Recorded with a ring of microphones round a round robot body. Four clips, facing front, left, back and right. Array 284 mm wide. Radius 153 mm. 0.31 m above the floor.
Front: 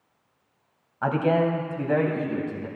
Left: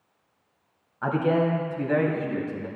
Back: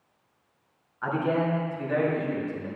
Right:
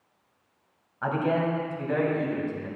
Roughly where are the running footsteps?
No running footsteps in this recording.